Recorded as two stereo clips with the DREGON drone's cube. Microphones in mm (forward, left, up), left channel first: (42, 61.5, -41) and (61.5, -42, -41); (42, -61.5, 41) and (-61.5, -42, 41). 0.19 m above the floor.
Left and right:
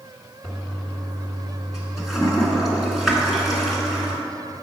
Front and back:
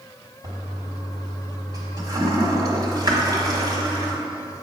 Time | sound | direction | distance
0.4 | a toilet flushing | 165° right | 1.4 m